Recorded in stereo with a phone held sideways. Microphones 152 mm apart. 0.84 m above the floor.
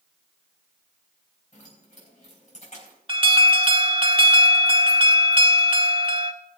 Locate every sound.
1.5 s keys jangling: 50° left (ahead or behind), 4 m
3.1 s an alarm: 35° right (ahead or behind), 1.0 m